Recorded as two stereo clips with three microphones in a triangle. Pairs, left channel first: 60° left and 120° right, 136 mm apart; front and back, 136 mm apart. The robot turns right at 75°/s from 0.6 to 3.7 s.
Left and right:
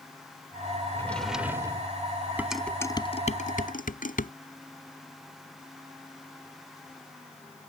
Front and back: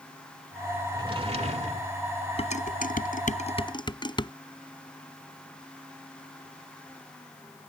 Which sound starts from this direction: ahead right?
Dishes clattering, at 2.4 s.